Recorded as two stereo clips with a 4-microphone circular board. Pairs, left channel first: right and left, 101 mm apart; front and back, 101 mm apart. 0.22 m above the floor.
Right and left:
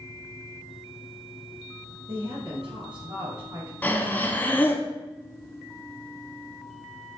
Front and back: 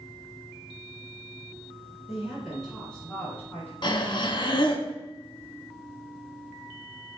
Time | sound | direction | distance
2.1 | a woman speaking | 100° left | 2.5 m
3.8 | breathing | 20° right | 0.6 m